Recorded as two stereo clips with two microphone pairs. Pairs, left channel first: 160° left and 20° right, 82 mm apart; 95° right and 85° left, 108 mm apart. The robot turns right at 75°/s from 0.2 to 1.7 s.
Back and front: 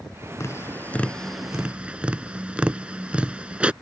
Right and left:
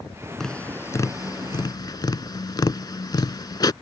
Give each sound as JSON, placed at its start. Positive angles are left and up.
{"t": 0.4, "sound": "tapping", "azimuth_deg": 175}